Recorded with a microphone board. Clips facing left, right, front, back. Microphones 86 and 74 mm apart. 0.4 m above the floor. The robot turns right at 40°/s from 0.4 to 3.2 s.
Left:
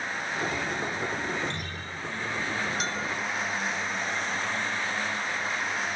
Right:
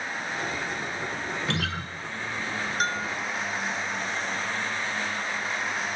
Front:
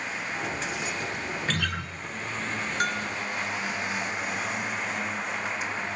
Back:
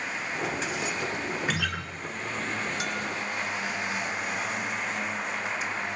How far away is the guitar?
About 2.5 m.